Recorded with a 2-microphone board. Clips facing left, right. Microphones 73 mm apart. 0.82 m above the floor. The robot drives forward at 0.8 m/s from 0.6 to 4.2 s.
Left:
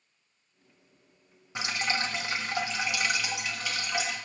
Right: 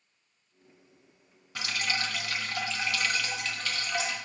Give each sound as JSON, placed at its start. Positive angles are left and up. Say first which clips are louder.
{"t": 1.6, "sound": "dripping", "louder": "left 2 dB", "side_deg": 20, "distance_m": 0.8}